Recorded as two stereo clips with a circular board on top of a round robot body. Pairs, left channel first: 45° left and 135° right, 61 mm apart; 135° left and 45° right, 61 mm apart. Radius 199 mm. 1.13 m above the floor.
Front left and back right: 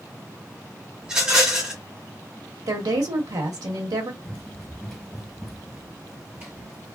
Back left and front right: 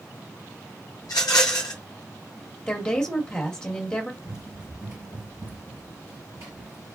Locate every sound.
1.0 s a rattle: 150° left, 0.7 m
2.7 s a woman speaking: 145° right, 1.5 m
4.2 s running footsteps: straight ahead, 1.7 m; by 7.0 s 85° right, 2 m